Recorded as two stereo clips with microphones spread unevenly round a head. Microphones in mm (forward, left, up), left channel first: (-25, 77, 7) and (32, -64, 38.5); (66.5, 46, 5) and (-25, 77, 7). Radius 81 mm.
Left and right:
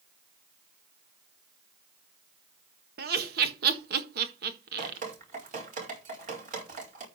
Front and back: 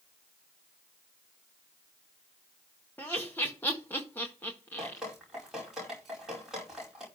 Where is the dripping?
110° right, 4.5 m.